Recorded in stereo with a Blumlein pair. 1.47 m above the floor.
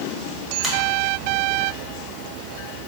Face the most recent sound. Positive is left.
turn(degrees=0)